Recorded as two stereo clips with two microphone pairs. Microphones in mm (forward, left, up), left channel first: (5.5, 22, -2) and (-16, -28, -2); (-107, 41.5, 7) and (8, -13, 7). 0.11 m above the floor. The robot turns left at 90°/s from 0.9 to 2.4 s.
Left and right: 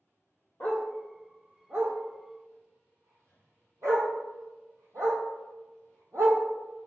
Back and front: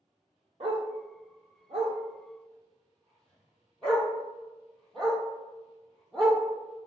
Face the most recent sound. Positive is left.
turn(degrees=-125)